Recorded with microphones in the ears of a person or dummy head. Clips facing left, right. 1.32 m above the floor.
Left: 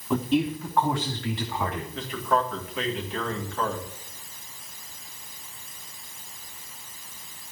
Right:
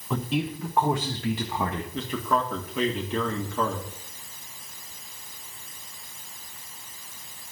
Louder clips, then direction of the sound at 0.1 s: Left 4 dB; 5° left (ahead or behind).